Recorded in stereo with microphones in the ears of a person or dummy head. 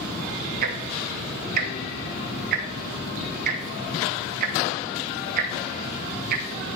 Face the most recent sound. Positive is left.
turn(degrees=-55)  # may be behind; listen again after turning